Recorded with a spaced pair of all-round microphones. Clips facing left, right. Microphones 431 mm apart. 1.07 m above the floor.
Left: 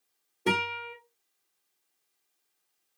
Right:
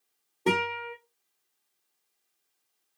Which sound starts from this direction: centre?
A guitar, at 0.5 s.